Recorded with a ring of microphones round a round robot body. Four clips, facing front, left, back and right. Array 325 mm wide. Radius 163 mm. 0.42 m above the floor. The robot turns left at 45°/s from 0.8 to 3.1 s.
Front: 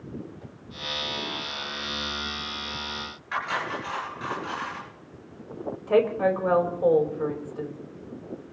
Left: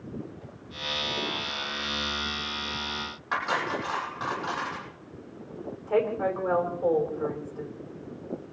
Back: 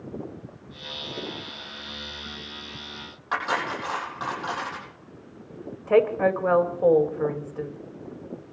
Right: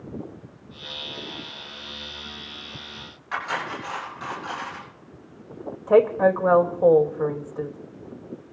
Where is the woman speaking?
105° right, 2.5 m.